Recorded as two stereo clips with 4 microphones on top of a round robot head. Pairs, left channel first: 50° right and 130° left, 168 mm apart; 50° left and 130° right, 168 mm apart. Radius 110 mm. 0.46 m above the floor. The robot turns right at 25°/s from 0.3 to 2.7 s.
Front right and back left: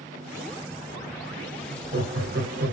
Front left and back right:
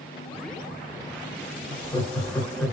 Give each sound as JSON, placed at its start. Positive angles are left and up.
{"t": 1.7, "sound": "laughter", "azimuth_deg": 110, "distance_m": 2.0}